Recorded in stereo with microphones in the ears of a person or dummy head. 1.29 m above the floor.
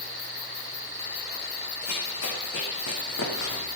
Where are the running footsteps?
75° left (ahead or behind), 5 m; by 3.7 s 65° left (ahead or behind), 3.5 m.